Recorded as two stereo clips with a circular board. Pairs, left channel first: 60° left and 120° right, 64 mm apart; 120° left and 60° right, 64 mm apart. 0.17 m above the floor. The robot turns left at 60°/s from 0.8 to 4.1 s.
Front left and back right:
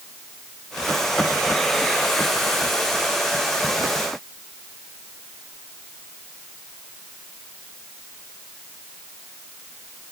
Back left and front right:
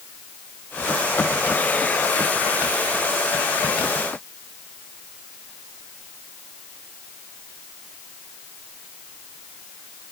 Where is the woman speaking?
I don't hear a woman speaking.